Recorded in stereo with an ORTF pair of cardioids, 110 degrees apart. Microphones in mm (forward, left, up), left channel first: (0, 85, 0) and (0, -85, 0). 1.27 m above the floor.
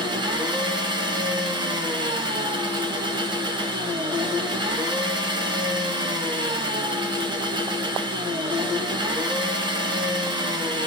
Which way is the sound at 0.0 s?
30° right.